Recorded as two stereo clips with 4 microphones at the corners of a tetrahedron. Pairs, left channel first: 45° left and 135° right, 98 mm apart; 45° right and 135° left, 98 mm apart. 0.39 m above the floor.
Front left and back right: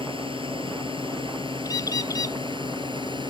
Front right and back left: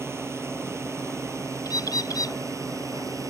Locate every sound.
0.0 s a drone: 160° right; by 3.3 s 170° right
1.6 s a bird: straight ahead